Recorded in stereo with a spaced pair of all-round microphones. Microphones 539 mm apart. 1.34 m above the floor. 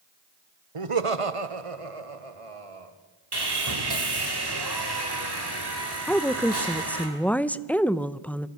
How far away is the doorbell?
No doorbell in this recording.